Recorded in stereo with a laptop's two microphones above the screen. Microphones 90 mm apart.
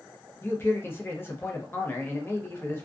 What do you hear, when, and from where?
0.4 s a man speaking: 25° left (ahead or behind), 0.6 m